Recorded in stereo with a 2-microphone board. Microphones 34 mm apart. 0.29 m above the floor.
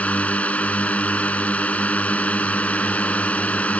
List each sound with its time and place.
0.0 s a drone: 40° left (ahead or behind)